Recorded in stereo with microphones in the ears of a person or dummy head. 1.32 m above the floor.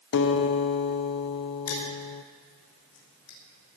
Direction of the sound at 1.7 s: 80° left.